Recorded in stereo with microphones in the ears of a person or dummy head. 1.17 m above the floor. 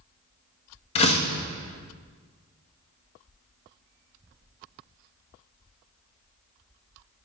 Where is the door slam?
35° left (ahead or behind), 1.1 m.